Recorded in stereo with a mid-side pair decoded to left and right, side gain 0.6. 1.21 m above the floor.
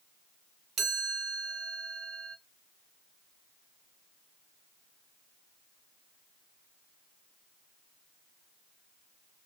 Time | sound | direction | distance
0.8 | a chime | 40° right | 0.8 m